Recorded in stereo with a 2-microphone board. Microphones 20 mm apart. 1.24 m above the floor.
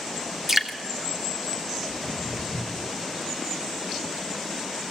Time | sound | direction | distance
0.5 | dripping | 20° right (ahead or behind) | 0.9 m
1.9 | footsteps | 35° left (ahead or behind) | 1.6 m